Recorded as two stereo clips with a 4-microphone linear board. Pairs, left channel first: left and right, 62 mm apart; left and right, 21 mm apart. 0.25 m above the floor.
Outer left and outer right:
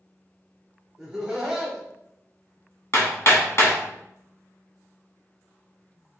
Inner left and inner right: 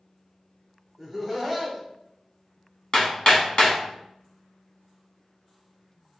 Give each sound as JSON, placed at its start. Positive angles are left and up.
{"t": 1.0, "sound": "laughter", "side_deg": -10, "distance_m": 1.4}
{"t": 2.9, "sound": "hammering", "side_deg": 50, "distance_m": 0.9}